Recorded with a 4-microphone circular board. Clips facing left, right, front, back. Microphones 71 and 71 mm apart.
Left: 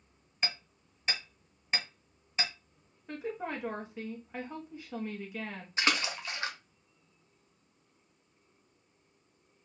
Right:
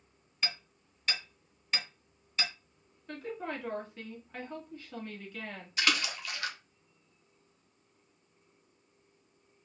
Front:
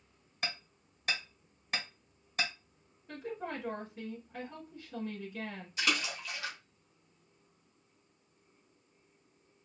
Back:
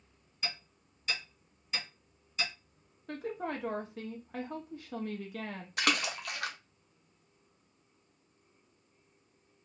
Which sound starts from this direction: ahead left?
Hammering, at 0.4 s.